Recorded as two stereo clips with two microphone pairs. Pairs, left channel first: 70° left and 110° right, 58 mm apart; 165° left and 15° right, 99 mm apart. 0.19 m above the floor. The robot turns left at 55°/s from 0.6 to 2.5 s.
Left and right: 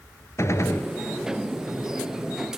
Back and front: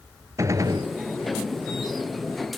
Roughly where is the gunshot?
Ahead left.